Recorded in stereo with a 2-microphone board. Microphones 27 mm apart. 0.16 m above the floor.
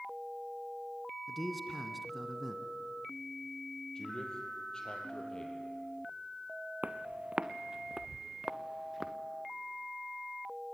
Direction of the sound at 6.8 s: 60° right (ahead or behind).